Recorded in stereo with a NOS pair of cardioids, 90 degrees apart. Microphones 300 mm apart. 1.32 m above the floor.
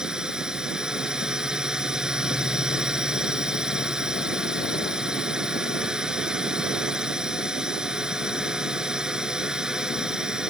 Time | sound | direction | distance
0.0 | a drone | straight ahead | ?